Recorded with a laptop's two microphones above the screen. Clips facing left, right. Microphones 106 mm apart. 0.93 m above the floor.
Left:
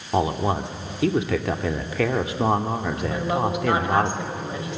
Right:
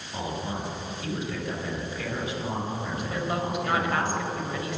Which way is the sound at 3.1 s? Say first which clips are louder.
Left 5 dB; 20° left (ahead or behind).